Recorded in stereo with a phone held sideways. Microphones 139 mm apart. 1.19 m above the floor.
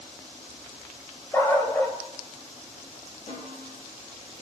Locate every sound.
1.3 s a dog barking: 20° left (ahead or behind), 1.7 m
3.3 s a snare drum: 60° left (ahead or behind), 5.5 m